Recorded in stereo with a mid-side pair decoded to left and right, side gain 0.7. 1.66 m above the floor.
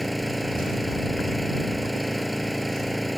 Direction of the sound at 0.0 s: Straight ahead.